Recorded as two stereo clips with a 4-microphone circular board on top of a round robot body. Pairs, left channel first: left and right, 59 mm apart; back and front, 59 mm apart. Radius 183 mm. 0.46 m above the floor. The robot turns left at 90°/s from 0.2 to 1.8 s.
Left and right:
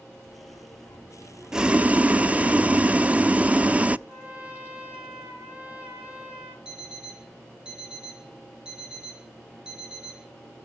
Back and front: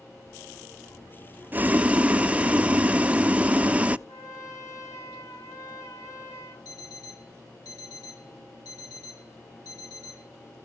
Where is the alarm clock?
165° right, 5.5 m.